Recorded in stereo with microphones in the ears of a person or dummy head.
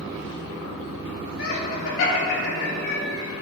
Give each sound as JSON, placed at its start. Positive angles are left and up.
{"t": 1.4, "sound": "laughter", "side_deg": 80, "distance_m": 1.7}